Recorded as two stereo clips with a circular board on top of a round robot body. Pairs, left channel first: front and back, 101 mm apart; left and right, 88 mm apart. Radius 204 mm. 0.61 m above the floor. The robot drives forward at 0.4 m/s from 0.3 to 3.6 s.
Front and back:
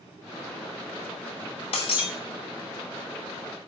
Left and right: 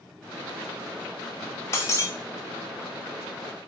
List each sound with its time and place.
1.7 s breaking glass: 30° left, 0.9 m; by 2.1 s 35° left, 0.7 m